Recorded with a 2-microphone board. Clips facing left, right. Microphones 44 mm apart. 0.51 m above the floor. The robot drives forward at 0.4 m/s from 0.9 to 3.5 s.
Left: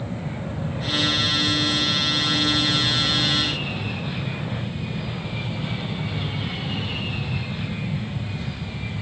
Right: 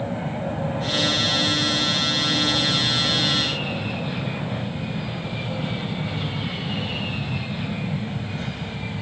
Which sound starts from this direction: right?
An aircraft, at 0.0 s.